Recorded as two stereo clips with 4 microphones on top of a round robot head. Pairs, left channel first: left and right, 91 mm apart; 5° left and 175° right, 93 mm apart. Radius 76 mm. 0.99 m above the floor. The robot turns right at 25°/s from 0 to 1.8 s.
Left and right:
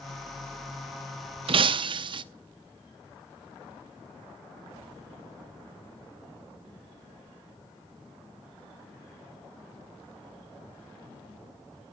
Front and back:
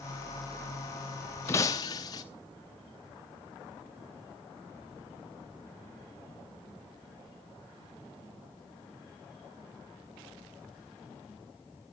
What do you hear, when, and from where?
1.5 s breaking glass: 70° right, 0.7 m; by 2.2 s 60° right, 0.7 m